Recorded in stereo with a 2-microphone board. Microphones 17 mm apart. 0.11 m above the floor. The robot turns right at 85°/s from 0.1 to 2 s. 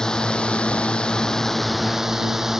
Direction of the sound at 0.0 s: 40° left.